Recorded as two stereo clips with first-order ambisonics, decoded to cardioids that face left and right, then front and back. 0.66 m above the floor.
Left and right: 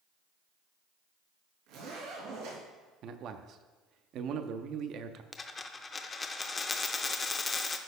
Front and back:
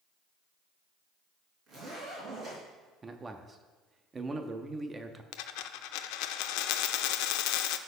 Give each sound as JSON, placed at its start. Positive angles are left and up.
{"t": 1.7, "sound": "a zipper", "azimuth_deg": -115, "distance_m": 3.5}
{"t": 3.0, "sound": "a man speaking", "azimuth_deg": -110, "distance_m": 0.6}
{"t": 5.3, "sound": "a dropped coin", "azimuth_deg": 15, "distance_m": 0.5}